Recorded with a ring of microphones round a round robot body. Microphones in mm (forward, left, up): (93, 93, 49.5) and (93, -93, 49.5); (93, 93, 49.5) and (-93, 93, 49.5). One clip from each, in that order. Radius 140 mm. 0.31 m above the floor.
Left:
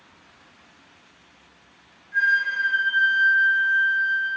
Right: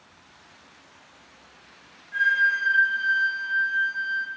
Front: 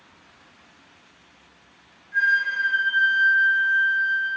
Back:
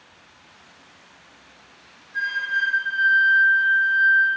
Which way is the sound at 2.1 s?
30° right.